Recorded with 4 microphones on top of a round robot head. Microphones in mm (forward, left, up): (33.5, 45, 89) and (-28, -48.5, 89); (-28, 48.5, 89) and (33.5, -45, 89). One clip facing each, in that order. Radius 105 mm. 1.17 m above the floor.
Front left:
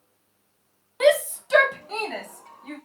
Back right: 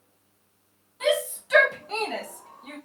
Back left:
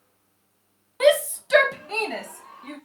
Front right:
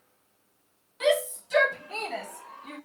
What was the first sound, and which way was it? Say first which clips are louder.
A shout: front left 6 dB, back left 6 dB; 85° left.